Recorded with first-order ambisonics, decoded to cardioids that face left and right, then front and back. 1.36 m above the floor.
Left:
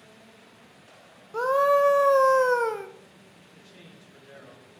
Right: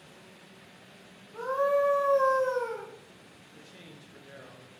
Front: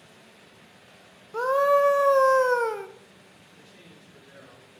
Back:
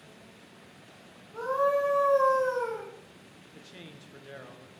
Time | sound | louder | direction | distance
1.3 | a scream | left 6 dB, front 6 dB | 45° left | 0.6 m
3.5 | a man speaking | right 1 dB, back 5 dB | 175° right | 1.3 m